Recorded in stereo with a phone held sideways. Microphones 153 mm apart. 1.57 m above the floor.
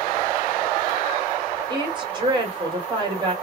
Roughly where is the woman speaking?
Right.